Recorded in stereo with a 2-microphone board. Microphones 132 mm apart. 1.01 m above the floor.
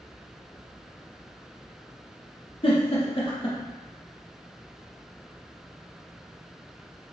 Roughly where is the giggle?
Left.